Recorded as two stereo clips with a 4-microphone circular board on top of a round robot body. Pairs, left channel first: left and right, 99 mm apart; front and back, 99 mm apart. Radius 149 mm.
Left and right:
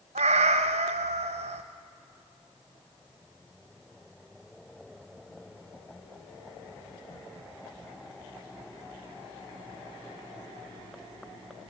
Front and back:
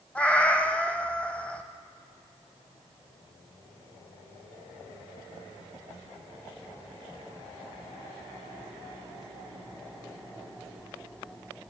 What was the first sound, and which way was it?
A cat meowing, 80° right.